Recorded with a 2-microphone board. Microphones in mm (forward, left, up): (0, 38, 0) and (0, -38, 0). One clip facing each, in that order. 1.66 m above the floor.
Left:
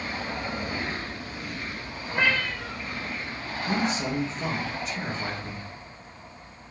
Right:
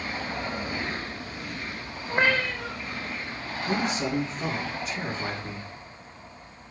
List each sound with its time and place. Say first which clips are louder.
2.1 s a cat meowing: right 2 dB; 40° right (ahead or behind), 2.5 m
3.7 s a man speaking: even; centre (ahead or behind), 3 m